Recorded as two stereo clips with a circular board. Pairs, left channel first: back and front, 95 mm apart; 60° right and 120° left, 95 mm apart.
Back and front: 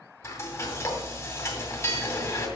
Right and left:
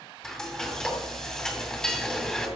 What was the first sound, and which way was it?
Frying, 140° right.